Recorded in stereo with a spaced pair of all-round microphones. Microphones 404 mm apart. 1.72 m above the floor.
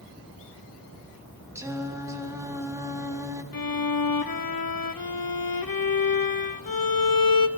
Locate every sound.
1.6 s singing: 5° right (ahead or behind), 1.2 m
3.5 s a violin: 60° left (ahead or behind), 0.6 m